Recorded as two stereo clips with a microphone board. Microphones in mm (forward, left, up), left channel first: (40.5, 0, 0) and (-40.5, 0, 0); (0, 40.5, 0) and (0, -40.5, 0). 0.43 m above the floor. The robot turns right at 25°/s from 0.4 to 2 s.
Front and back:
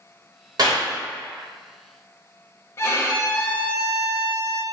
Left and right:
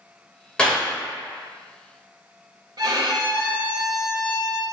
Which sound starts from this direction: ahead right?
A violin, at 2.8 s.